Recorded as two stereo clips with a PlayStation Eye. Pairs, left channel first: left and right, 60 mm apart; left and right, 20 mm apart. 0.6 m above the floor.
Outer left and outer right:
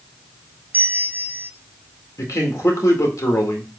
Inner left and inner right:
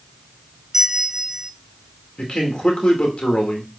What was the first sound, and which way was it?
A bell, 25° right (ahead or behind).